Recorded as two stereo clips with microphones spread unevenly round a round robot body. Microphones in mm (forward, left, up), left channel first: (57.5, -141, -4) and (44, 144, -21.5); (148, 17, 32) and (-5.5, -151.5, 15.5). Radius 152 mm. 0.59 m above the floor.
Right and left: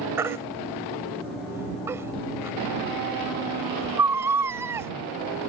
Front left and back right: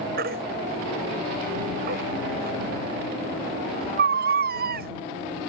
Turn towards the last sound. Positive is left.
turn(degrees=175)